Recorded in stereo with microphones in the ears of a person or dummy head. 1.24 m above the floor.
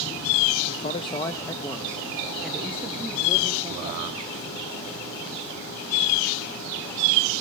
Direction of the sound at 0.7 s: 35° left (ahead or behind).